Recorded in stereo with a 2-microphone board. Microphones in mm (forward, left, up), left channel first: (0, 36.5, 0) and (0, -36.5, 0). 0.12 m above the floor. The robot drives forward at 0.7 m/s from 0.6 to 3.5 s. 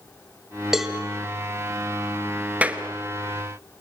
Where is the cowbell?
5° right (ahead or behind), 2 m.